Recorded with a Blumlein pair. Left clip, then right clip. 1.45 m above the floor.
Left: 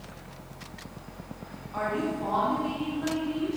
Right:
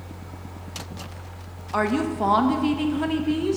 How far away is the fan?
About 1.4 m.